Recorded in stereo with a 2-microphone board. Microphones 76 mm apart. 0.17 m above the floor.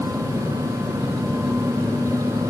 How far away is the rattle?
No rattle in this recording.